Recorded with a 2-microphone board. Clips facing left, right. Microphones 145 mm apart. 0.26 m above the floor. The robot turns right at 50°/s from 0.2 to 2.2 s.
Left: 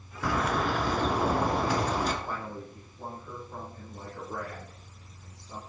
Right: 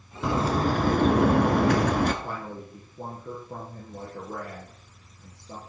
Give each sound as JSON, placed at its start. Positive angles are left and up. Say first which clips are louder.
{"t": 0.2, "sound": "a bird", "louder": "right 4 dB", "azimuth_deg": -155, "distance_m": 1.5}
{"t": 2.2, "sound": "a man speaking", "louder": "right 1 dB", "side_deg": -80, "distance_m": 5.5}